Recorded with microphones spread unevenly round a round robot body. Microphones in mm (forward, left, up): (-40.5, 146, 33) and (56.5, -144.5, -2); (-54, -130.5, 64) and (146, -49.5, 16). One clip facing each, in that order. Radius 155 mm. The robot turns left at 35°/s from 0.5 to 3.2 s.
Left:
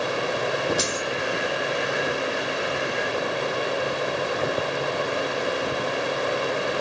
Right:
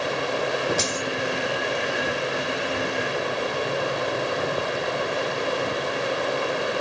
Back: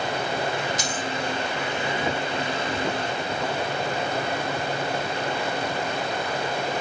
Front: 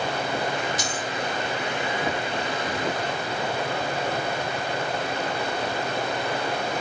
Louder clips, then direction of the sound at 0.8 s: Even, back 1 dB; 55° right.